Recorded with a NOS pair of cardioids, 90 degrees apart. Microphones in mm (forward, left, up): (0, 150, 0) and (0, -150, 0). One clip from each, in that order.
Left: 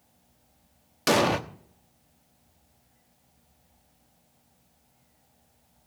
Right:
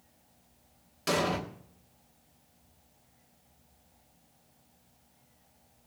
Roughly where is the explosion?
Ahead left.